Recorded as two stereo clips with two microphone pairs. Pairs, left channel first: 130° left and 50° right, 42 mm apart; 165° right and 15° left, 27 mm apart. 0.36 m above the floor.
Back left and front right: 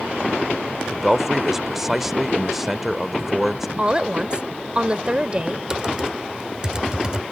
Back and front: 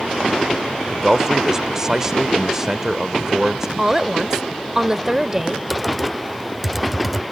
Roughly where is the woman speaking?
Ahead right.